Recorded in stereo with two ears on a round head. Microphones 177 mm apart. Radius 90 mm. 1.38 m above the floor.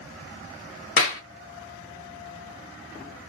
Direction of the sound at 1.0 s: 45° left (ahead or behind).